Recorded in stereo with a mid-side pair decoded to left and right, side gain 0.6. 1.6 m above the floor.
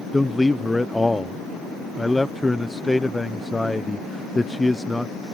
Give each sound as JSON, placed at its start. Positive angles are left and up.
{"t": 0.1, "sound": "a man speaking", "azimuth_deg": 10}